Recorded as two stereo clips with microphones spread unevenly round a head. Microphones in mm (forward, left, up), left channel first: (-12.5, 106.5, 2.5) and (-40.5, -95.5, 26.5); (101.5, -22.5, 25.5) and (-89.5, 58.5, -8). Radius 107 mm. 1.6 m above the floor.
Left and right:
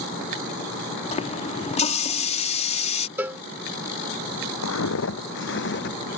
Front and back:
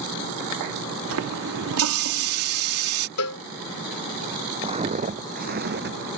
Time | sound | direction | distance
1.1 | a running tap | 140° left | ?
3.2 | a cowbell | 20° right | ?
4.6 | footsteps | 90° left | ?